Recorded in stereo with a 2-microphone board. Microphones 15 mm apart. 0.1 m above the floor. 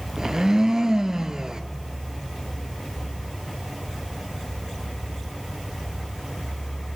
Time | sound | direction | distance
0.2 | a blender | 40° right (ahead or behind) | 0.6 m